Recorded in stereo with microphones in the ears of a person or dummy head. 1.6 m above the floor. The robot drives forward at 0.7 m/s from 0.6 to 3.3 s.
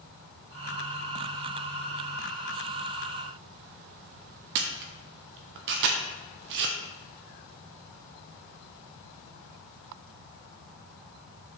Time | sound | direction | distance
4.5 | a camera shutter | 60° right (ahead or behind) | 0.6 m